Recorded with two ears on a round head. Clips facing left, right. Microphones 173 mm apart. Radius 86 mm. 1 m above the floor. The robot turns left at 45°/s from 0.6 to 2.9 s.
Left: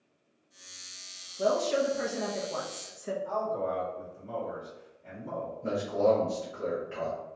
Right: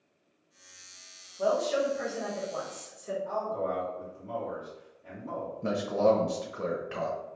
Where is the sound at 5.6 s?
65° right (ahead or behind), 0.7 m.